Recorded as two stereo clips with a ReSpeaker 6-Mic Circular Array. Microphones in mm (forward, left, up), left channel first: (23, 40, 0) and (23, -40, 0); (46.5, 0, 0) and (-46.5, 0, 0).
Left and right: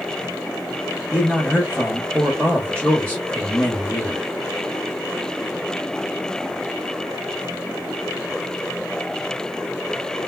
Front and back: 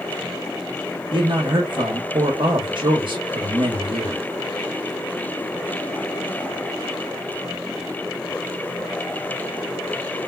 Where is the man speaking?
165° left, 0.9 m.